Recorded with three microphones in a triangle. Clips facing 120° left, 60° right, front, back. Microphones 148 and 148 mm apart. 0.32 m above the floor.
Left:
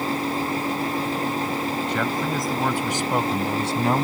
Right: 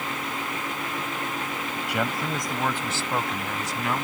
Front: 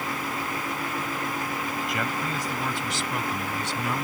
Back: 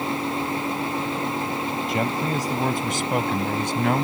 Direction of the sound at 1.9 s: 135° right.